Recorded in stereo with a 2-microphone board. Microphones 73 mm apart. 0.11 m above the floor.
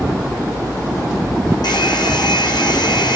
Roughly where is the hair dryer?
Left.